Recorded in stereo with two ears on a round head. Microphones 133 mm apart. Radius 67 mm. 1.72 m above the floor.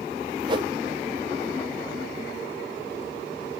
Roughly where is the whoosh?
Right.